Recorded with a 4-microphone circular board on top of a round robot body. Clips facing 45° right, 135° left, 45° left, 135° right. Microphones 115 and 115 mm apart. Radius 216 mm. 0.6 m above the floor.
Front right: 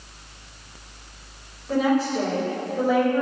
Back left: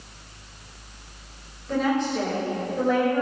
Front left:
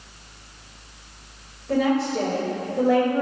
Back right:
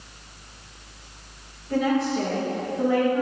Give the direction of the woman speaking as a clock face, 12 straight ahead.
11 o'clock.